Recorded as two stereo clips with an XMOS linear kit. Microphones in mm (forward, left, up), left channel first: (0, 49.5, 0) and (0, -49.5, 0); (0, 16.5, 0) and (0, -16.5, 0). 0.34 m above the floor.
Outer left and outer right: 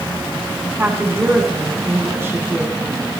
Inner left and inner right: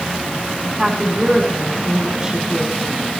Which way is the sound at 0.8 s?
20° right (ahead or behind).